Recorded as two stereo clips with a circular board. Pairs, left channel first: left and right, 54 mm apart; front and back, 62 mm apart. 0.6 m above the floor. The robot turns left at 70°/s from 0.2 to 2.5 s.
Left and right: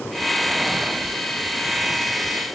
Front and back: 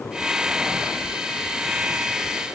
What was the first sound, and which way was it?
Only background noise.